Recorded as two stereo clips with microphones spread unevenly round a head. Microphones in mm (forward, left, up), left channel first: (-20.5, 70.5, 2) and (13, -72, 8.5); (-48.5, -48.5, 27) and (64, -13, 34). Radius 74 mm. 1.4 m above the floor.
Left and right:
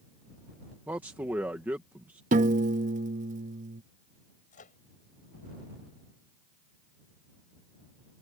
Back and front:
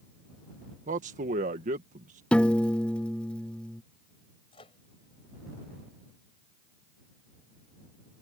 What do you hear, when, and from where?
0.9 s a man speaking: straight ahead
2.3 s a piano: 80° right
4.5 s a microwave: 140° left